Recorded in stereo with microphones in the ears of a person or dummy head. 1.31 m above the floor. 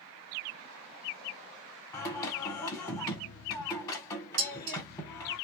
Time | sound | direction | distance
1.9 | singing | 15° left (ahead or behind) | 1.6 m
4.4 | dishes clattering | 70° right (ahead or behind) | 1.5 m